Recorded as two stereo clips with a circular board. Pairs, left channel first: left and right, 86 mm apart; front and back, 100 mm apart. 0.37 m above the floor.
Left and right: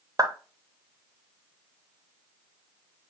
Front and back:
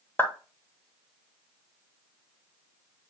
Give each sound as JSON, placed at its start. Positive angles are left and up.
{"t": 0.2, "sound": "a clap", "azimuth_deg": -60, "distance_m": 1.0}